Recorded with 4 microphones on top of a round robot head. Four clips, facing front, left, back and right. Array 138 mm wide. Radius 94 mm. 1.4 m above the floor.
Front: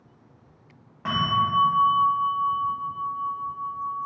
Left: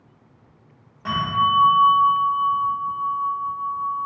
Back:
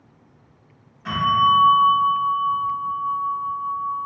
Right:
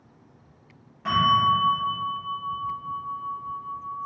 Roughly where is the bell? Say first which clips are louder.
Right 1 dB, back 6 dB; ahead.